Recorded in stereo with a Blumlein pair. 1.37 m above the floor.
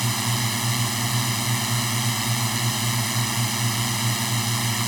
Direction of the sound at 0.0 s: 5° right.